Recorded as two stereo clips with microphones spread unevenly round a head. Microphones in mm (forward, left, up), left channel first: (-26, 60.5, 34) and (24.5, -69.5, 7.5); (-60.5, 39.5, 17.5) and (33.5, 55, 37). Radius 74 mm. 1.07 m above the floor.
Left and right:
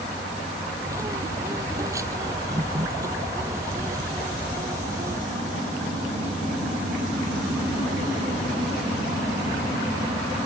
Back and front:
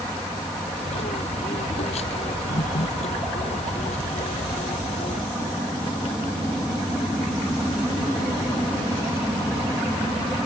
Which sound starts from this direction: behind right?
A bird, at 0.8 s.